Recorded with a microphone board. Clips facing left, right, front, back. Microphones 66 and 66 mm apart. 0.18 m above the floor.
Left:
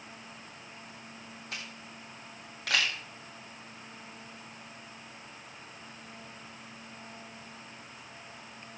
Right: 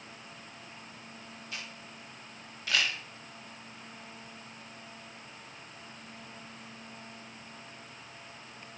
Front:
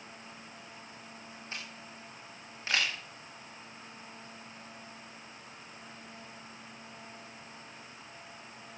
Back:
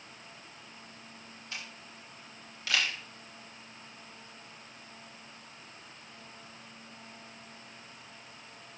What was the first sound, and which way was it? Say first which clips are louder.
A camera shutter: left 1 dB, even; 60° left.